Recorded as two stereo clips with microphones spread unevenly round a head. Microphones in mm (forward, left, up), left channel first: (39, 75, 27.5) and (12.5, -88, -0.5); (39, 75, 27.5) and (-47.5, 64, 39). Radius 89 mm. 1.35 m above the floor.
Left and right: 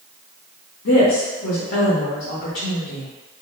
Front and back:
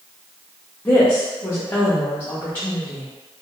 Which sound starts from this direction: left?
A woman speaking, at 0.8 s.